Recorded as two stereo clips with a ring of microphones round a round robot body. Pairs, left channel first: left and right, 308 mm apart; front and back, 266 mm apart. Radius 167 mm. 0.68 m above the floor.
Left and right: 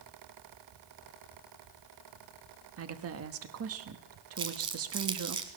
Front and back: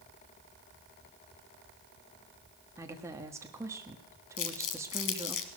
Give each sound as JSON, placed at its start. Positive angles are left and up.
{"t": 2.8, "sound": "a woman speaking", "azimuth_deg": -105, "distance_m": 1.2}
{"t": 4.4, "sound": "crumpling", "azimuth_deg": -15, "distance_m": 1.0}